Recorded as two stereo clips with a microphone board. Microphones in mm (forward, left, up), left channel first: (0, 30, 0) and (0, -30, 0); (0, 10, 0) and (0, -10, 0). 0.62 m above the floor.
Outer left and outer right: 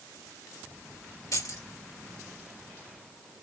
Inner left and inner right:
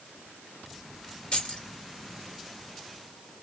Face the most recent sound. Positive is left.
turn(degrees=70)  # may be behind; listen again after turning